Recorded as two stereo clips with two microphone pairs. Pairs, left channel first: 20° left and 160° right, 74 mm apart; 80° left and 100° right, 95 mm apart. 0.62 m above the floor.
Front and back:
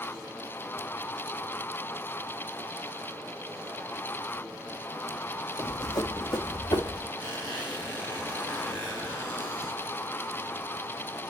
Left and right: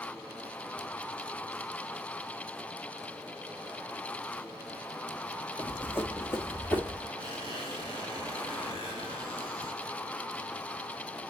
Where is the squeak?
80° left, 3 m.